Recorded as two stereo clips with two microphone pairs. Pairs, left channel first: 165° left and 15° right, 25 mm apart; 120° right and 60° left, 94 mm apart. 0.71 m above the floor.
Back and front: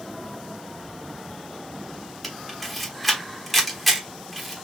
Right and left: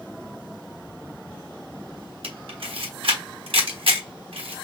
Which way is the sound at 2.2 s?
75° left.